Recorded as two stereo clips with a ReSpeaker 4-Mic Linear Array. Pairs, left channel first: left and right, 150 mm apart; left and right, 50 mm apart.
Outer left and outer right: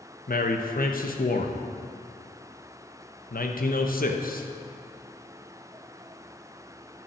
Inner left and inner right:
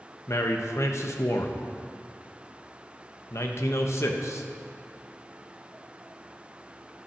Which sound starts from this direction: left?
A man speaking, at 0.3 s.